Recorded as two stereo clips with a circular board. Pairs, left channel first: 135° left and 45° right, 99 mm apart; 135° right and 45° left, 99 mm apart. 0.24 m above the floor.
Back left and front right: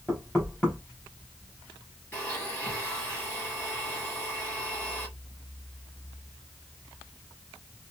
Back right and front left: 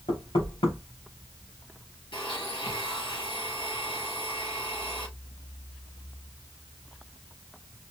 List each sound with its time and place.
0.1 s knocking: 155° right, 3.5 m
2.1 s a blender: 150° right, 3.5 m